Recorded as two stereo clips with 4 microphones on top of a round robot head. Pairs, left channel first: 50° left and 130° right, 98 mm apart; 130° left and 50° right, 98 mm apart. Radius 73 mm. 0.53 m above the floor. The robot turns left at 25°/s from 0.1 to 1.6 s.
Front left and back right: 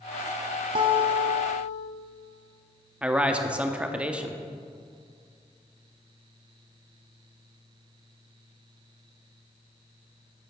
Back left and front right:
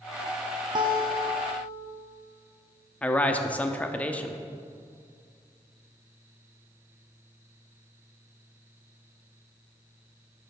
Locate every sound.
0.8 s a guitar: 90° right, 0.8 m; by 1.9 s 115° right, 0.8 m
3.0 s a man speaking: 175° left, 0.7 m